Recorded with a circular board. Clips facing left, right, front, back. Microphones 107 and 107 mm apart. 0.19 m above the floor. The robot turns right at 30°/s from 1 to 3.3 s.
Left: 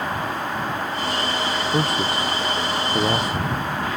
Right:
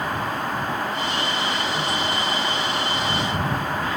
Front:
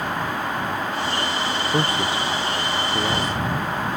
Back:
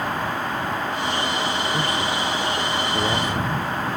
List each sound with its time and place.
1.7 s a man speaking: 50° left; by 3.7 s 100° left